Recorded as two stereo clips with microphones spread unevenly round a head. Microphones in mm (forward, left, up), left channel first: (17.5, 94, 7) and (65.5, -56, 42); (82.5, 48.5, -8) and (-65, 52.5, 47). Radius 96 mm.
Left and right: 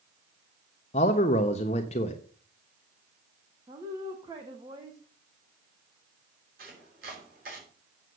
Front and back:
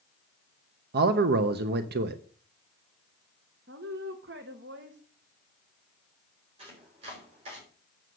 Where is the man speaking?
165° left, 0.9 m.